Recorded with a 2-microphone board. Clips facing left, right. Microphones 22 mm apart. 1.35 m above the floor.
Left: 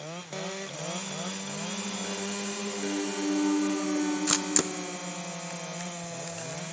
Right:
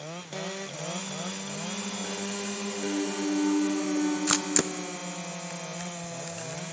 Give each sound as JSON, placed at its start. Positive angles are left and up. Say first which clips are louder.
{"t": 2.8, "sound": "a flute", "louder": "right 2 dB", "side_deg": 50, "distance_m": 7.5}
{"t": 4.3, "sound": "a camera shutter", "louder": "right 1 dB", "side_deg": -20, "distance_m": 0.5}